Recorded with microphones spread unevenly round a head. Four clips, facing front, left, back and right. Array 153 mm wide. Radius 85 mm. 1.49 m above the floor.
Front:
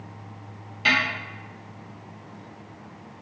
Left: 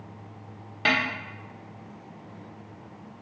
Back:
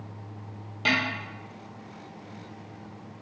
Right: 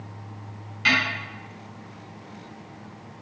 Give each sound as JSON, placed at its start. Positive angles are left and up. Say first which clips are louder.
{"t": 0.8, "sound": "a snare drum", "louder": "right 1 dB, front 3 dB", "azimuth_deg": 120, "distance_m": 0.9}